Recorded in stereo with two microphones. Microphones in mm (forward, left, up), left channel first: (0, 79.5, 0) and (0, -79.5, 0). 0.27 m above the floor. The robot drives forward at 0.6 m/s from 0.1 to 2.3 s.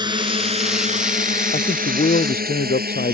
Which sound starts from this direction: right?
A drone, at 0.0 s.